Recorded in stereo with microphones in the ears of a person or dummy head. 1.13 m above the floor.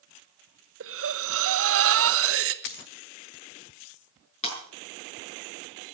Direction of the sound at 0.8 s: 65° right (ahead or behind).